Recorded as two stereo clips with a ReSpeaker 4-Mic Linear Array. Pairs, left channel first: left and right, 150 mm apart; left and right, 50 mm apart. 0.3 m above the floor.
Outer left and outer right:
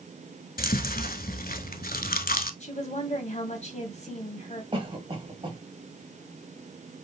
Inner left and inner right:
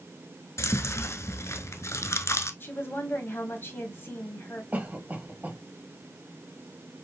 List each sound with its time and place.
0.6 s chewing: 75° left (ahead or behind), 0.7 m
2.6 s a woman speaking: 50° left (ahead or behind), 1.7 m
4.7 s a cough: 35° right (ahead or behind), 1.6 m